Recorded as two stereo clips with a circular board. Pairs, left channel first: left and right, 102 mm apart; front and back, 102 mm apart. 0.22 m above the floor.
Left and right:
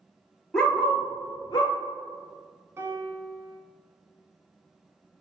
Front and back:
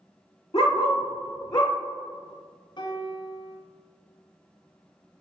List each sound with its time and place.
0.5 s a dog barking: 5° left, 1.0 m; by 1.7 s 50° left, 0.8 m
2.8 s a piano: 30° right, 0.7 m